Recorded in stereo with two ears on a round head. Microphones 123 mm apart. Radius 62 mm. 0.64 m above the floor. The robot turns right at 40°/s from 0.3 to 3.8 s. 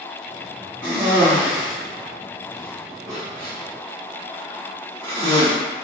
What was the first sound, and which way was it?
A cough, 15° left (ahead or behind).